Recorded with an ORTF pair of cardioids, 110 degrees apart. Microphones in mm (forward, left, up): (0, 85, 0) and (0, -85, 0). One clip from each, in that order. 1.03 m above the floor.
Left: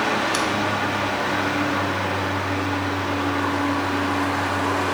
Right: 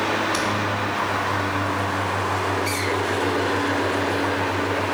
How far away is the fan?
About 1.2 m.